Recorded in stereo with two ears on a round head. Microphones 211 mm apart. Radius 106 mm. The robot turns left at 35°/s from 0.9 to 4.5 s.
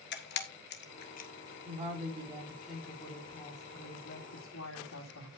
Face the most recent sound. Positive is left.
turn(degrees=120)